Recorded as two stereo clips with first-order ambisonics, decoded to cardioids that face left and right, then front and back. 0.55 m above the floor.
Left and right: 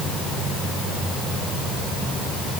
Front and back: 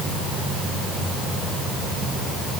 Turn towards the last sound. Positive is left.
No sound to turn to.